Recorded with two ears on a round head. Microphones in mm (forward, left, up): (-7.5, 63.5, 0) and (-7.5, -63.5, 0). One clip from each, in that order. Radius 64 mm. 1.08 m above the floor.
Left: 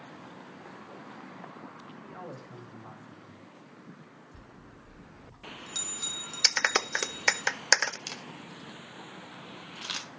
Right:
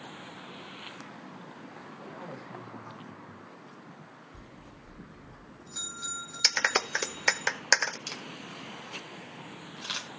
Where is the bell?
65° left (ahead or behind), 3.5 m.